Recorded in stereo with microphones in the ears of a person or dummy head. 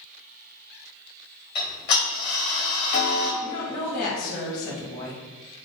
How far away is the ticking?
About 1.8 m.